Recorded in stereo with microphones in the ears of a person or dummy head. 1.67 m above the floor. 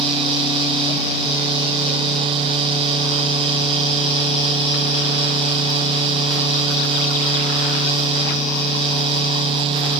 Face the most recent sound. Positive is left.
No sound to turn to.